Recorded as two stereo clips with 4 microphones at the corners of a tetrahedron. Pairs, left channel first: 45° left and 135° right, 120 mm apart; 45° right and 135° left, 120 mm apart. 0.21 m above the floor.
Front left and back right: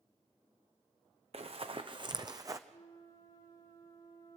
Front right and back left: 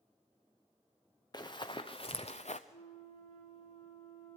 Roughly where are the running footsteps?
Right.